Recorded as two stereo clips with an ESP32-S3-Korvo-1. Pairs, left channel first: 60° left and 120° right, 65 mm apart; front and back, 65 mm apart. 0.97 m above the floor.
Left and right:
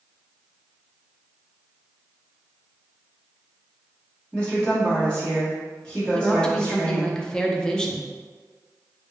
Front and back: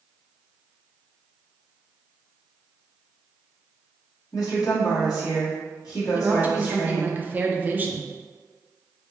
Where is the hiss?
I don't hear a hiss.